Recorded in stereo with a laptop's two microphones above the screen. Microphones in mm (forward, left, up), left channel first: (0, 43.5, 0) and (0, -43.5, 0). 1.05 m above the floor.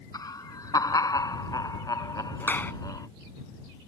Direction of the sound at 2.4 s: 20° left (ahead or behind).